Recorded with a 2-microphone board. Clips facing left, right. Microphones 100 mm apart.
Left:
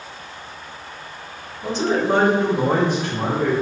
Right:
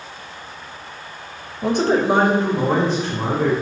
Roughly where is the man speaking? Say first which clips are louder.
Right 3 dB; right.